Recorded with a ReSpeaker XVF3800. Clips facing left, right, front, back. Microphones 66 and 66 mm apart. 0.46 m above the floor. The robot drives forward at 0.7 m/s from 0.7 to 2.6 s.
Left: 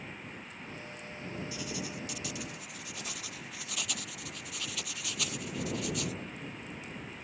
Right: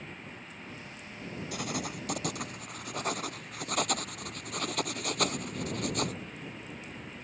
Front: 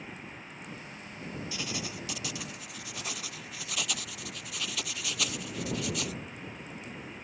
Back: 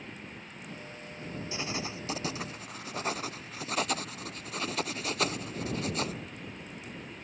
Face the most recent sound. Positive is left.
turn(degrees=-125)